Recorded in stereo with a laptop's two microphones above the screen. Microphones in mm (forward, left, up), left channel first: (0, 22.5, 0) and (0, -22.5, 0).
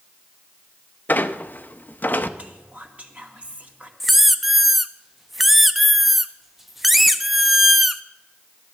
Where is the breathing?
No breathing in this recording.